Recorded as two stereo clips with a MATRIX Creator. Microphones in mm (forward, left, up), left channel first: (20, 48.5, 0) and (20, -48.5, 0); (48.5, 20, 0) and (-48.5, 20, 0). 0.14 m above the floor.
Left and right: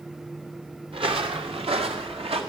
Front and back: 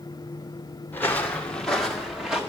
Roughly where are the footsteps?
Right.